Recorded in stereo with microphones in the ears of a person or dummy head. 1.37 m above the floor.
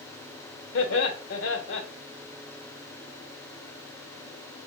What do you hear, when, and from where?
0.7 s laughter: 70° left (ahead or behind), 1.1 m